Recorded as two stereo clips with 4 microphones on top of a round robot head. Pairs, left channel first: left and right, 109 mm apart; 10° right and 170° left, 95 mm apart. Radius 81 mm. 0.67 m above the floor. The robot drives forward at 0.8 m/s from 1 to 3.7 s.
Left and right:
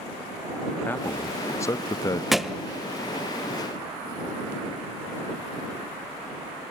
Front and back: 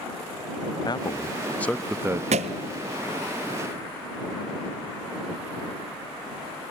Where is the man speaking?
20° left, 0.9 m; by 2.2 s 135° left, 0.6 m.